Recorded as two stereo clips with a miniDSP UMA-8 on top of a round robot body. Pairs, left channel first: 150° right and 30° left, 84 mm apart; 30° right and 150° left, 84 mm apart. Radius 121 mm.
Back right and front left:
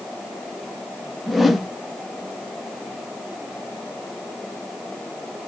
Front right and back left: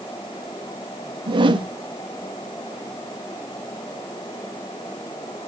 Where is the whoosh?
120° left, 0.6 m.